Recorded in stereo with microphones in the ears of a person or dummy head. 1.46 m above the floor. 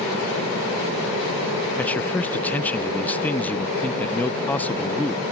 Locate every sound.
1.8 s a man speaking: 10° left (ahead or behind)